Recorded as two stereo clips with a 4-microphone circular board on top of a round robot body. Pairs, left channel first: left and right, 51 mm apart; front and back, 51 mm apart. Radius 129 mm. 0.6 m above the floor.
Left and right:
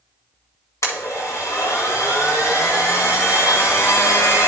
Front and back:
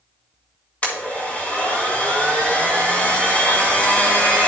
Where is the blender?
60° left, 2 m.